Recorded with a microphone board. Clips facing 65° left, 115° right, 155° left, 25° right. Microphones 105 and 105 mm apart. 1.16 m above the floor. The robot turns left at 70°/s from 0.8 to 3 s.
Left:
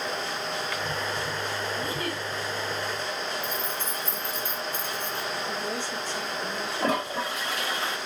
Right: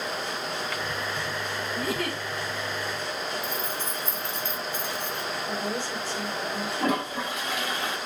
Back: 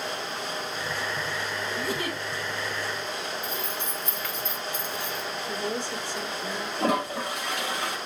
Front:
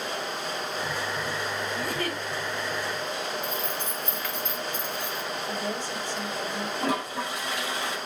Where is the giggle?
110° right, 1.7 m; by 2.2 s 140° right, 1.7 m.